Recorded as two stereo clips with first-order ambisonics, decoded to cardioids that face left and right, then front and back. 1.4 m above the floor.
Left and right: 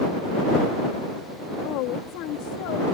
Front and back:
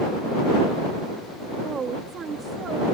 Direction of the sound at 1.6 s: 115° left.